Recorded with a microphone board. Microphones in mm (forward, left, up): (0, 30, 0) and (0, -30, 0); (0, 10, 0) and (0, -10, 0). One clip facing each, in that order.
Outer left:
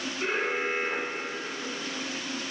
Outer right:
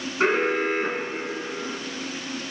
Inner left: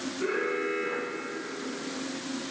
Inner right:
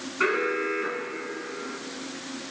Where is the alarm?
85° right, 5.5 m.